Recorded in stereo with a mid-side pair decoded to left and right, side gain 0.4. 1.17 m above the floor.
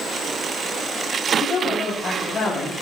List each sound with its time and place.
1.4 s a woman speaking: 60° left, 5.5 m